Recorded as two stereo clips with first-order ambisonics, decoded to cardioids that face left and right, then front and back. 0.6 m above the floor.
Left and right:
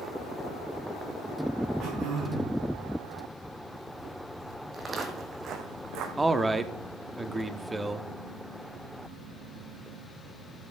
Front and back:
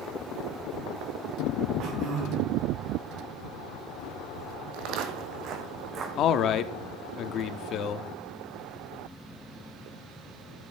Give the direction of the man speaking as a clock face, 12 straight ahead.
12 o'clock.